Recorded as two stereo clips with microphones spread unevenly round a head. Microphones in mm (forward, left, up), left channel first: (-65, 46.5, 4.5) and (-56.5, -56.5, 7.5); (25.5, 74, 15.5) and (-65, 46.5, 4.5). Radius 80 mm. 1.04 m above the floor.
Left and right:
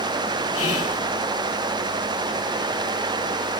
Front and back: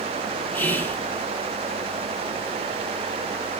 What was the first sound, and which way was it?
Whispering, 90° left.